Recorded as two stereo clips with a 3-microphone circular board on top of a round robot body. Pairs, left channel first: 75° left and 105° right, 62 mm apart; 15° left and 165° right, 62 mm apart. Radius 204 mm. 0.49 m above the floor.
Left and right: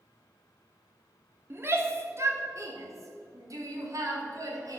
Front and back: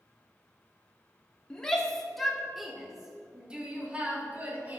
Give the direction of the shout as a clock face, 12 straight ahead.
2 o'clock.